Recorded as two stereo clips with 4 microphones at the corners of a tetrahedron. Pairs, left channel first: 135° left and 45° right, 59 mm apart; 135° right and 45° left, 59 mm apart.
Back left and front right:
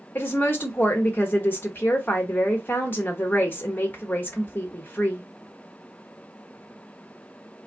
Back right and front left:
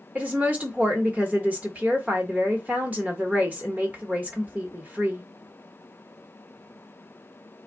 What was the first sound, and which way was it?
A woman speaking, 95° left.